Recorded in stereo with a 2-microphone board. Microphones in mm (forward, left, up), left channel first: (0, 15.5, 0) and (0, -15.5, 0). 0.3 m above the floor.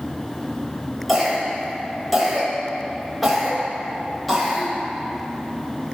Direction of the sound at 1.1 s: Centre (ahead or behind).